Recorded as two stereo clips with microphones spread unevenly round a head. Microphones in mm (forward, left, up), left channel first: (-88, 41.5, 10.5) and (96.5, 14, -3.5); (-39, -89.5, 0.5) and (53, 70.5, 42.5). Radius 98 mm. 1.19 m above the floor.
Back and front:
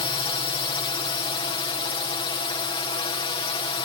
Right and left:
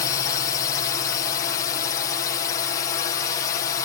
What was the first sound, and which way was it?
A drone, 140° right.